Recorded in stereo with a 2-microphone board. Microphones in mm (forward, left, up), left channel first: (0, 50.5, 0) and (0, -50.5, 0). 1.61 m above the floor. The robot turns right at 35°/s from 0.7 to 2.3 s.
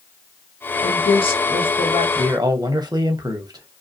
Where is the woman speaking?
75° left, 0.8 m; by 2.0 s 115° left, 0.8 m.